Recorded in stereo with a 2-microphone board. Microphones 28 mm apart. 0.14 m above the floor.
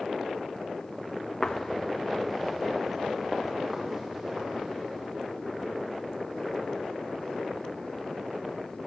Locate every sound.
1.4 s footsteps: 25° left (ahead or behind), 0.5 m; by 5.0 s 10° right (ahead or behind), 3 m